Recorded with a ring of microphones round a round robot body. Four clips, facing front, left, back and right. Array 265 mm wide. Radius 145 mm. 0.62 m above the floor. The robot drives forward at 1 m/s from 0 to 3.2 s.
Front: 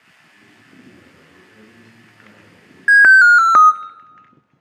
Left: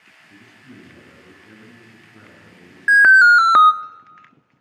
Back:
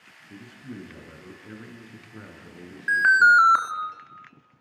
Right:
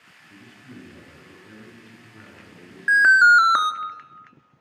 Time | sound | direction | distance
0.3 | a man speaking | 170° left | 9 m
2.9 | an alarm | 25° left | 1.1 m